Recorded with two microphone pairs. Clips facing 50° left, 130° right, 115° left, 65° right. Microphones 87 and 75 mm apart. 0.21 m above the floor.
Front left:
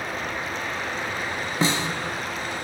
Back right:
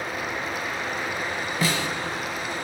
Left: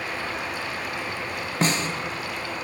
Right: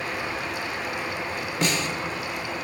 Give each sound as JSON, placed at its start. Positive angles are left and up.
{"t": 1.6, "sound": "a snare drum", "azimuth_deg": 95, "distance_m": 0.7}